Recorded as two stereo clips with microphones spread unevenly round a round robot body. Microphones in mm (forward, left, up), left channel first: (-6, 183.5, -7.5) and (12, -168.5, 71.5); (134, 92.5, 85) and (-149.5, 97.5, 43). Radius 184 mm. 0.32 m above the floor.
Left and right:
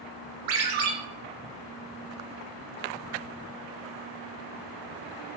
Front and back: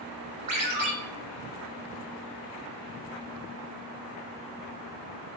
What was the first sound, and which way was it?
A ringtone, 115° right.